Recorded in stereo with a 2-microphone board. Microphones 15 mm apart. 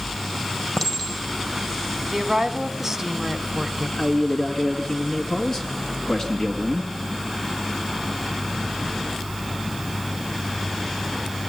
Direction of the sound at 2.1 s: 15° right (ahead or behind).